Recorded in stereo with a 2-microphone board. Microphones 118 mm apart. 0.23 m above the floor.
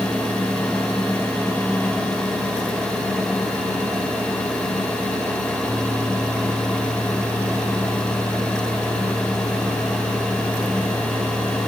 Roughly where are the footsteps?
No footsteps in this recording.